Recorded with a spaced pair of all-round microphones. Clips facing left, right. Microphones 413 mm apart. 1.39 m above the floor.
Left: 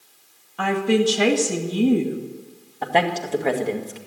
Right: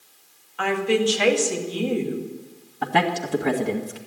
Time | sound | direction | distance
0.6 | a woman speaking | 60° left (ahead or behind) | 2 m
2.8 | a man speaking | 25° right (ahead or behind) | 1.8 m